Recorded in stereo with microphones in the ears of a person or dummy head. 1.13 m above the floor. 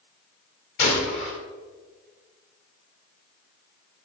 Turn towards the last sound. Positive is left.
turn(degrees=55)  # may be behind; listen again after turning